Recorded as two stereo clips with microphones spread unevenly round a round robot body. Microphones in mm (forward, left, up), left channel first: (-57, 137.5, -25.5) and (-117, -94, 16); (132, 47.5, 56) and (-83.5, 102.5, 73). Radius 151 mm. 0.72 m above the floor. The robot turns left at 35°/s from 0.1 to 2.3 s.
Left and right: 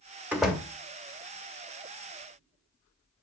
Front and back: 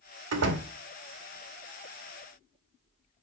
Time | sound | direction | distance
0.3 | a door slam | 170° left | 2 m